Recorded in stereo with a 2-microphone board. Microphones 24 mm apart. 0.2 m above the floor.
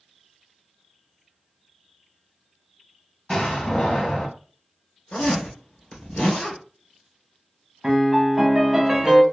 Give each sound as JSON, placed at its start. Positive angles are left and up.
{"t": 3.3, "sound": "a door slam", "side_deg": 30, "distance_m": 0.9}
{"t": 5.1, "sound": "a zipper", "side_deg": 75, "distance_m": 2.5}
{"t": 7.8, "sound": "a piano", "side_deg": -20, "distance_m": 1.0}